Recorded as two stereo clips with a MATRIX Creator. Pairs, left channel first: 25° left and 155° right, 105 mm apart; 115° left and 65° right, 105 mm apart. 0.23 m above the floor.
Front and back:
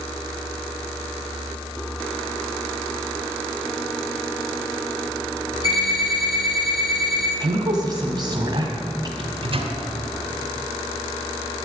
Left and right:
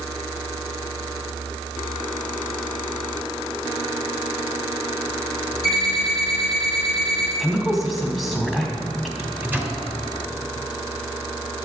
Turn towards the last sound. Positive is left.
turn(degrees=-140)